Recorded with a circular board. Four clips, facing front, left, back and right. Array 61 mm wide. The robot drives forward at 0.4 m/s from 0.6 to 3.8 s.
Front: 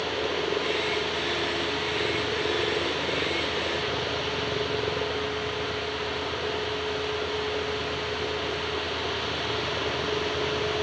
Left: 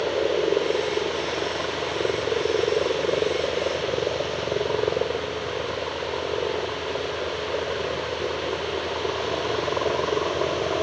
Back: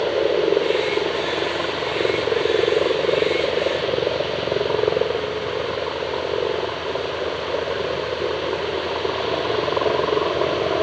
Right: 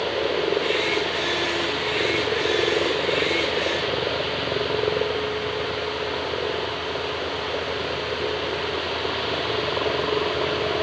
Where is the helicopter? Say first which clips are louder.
Left 1 dB, back 10 dB; 170° left.